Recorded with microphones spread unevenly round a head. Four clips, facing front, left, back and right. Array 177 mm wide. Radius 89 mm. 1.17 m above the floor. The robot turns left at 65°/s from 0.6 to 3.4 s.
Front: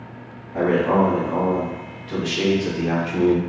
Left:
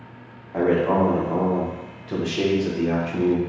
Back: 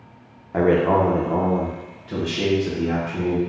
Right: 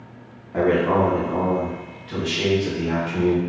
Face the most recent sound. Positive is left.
turn(degrees=10)